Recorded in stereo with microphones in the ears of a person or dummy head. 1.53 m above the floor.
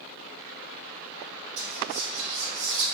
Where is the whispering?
60° right (ahead or behind), 1.3 m.